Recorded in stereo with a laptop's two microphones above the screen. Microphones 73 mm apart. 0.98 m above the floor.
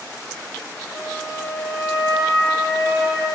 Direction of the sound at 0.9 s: 55° left (ahead or behind).